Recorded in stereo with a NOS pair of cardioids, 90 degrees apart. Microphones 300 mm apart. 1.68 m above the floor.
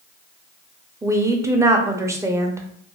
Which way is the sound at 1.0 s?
10° right.